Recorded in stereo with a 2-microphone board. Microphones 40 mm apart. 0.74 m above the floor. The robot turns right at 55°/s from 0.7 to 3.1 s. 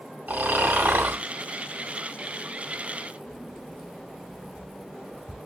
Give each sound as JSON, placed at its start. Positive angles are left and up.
{"t": 0.3, "sound": "snoring", "side_deg": -45, "distance_m": 1.6}
{"t": 3.3, "sound": "keys jangling", "side_deg": 10, "distance_m": 2.0}